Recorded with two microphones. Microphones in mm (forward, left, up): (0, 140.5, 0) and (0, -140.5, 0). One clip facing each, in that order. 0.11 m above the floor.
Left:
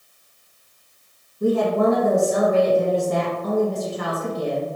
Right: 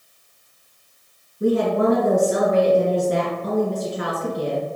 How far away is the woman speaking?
About 1.6 m.